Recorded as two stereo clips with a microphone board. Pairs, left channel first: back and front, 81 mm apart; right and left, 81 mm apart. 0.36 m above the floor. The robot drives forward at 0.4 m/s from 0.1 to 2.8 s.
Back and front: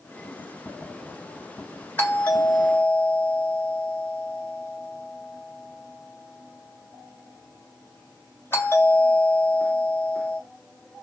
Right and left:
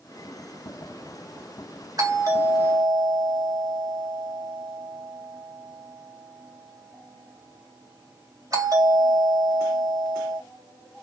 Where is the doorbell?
115° left, 3 m; by 10.4 s 120° left, 3.5 m.